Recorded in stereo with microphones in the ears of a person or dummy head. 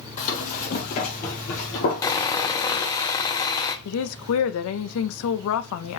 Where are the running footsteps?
35° left (ahead or behind), 2 m.